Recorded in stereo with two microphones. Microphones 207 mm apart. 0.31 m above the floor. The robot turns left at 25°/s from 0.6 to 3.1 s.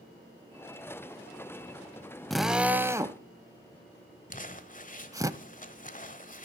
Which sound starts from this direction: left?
Crumpling, at 4.3 s.